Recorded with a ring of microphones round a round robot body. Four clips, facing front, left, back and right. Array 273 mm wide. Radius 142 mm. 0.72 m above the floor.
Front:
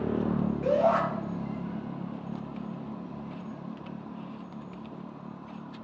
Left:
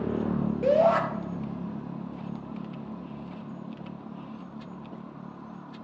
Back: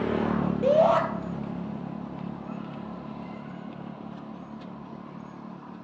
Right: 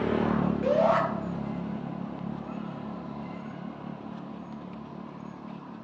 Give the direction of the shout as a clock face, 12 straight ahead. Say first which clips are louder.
Left 3 dB, back 4 dB; 7 o'clock.